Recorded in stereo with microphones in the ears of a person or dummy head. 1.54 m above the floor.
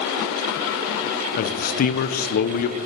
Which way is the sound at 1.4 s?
45° left (ahead or behind).